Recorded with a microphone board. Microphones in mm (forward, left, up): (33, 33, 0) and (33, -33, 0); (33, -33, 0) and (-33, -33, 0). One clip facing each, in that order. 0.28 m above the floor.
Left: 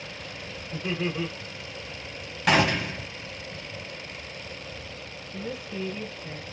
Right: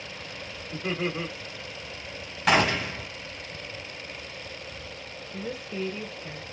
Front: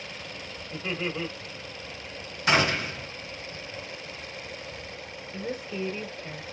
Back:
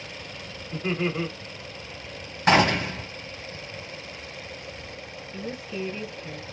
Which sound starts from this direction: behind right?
Laughter, at 0.7 s.